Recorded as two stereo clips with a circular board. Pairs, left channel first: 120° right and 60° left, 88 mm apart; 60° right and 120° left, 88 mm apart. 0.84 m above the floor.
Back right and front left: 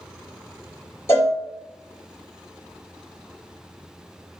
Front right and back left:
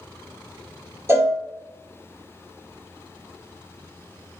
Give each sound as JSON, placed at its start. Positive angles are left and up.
{"t": 1.1, "sound": "a cowbell", "azimuth_deg": 180, "distance_m": 0.7}